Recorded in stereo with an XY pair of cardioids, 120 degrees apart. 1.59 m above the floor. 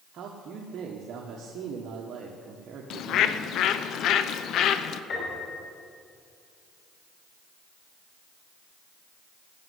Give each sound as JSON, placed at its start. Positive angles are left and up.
{"t": 0.1, "sound": "a man speaking", "azimuth_deg": -60, "distance_m": 1.4}
{"t": 2.9, "sound": "a bird", "azimuth_deg": 65, "distance_m": 0.7}
{"t": 5.1, "sound": "a piano", "azimuth_deg": 65, "distance_m": 5.5}